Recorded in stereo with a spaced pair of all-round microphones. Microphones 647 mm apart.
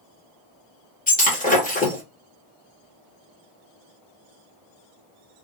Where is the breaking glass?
10° left (ahead or behind), 1.4 m.